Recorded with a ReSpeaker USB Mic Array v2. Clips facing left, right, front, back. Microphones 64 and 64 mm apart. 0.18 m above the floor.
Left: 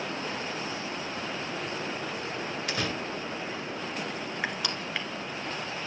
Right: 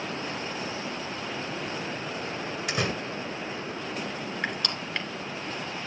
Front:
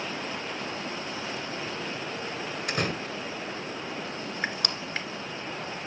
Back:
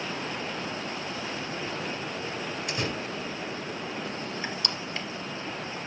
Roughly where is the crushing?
Ahead.